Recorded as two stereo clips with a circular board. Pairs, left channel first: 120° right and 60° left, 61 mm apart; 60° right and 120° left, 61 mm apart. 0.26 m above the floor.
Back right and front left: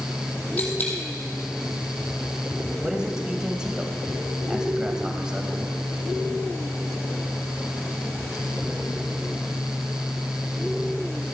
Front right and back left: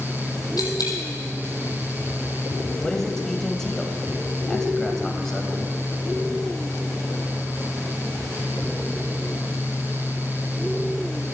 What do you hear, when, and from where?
0.6 s a dropped coin: 60° right, 3 m
2.8 s a man speaking: 10° left, 1.2 m